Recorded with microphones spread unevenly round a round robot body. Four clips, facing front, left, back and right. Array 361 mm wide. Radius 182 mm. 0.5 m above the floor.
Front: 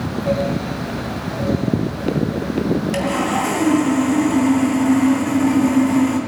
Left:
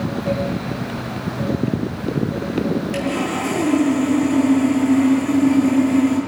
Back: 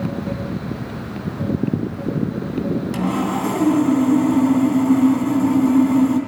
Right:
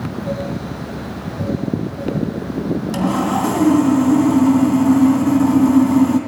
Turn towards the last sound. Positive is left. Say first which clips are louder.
# right 4 dB, front 2 dB
turn(degrees=-90)